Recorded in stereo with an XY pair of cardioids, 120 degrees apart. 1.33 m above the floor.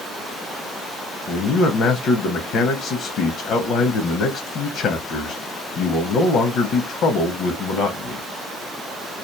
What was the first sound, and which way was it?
A man speaking, 65° left.